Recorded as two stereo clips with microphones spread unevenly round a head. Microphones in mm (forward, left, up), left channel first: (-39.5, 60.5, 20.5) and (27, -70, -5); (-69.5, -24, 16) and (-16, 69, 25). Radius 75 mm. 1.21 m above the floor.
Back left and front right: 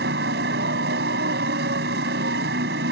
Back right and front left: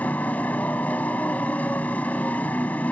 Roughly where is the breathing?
I don't hear breathing.